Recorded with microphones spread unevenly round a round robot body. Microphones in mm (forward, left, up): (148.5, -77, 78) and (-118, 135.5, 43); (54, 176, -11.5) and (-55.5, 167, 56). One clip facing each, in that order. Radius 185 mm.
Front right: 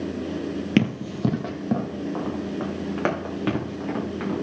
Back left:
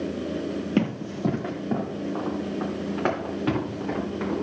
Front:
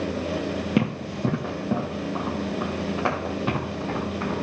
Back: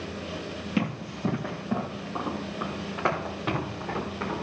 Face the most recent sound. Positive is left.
turn(degrees=-85)